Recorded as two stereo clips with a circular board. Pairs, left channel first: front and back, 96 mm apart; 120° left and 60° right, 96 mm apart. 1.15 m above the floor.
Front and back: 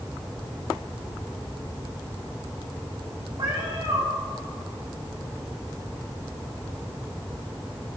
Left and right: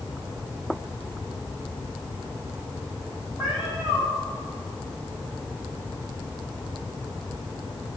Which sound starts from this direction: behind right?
A cat meowing, at 3.4 s.